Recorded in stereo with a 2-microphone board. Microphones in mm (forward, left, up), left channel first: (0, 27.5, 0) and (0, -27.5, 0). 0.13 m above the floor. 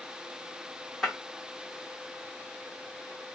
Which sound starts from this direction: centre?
Breaking glass, at 1.0 s.